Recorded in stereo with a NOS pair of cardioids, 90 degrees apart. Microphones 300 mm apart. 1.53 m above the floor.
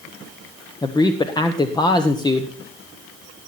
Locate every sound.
0.8 s a man speaking: 15° left, 1.1 m